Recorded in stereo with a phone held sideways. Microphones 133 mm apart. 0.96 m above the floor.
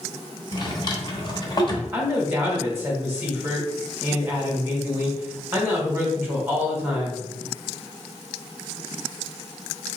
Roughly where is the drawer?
Left.